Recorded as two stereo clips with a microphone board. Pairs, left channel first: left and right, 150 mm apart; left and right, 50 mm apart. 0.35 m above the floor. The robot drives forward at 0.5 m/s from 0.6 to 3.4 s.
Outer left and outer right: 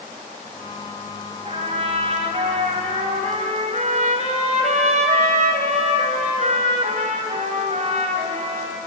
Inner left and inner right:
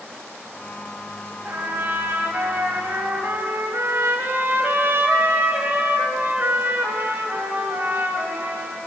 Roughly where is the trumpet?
Right.